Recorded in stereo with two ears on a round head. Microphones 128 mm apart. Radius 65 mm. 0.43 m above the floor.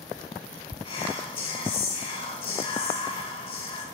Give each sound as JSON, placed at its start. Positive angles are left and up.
{"t": 0.8, "sound": "whispering", "side_deg": 45, "distance_m": 1.3}